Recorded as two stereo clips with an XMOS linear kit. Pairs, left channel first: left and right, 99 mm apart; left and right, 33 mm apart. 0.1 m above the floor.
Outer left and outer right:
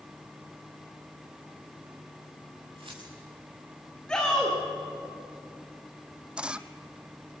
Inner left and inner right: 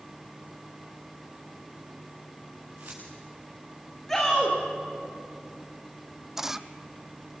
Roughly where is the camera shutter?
Centre.